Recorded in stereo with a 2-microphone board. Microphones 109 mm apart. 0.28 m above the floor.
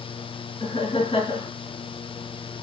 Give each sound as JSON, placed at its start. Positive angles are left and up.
{"t": 0.6, "sound": "laughter", "side_deg": 50, "distance_m": 4.0}